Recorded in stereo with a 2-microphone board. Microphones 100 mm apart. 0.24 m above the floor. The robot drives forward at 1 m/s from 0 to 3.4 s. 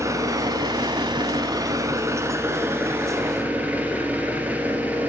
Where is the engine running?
35° right (ahead or behind), 1.4 m; by 5.1 s 15° right (ahead or behind), 2.5 m.